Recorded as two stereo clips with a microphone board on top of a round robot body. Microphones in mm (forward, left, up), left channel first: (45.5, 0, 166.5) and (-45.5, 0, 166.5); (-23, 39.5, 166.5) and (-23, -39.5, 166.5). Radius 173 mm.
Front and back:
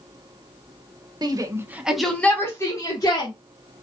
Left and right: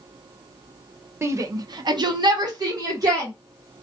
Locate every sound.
1.2 s a shout: 145° right, 1.2 m; by 3.3 s 45° right, 2 m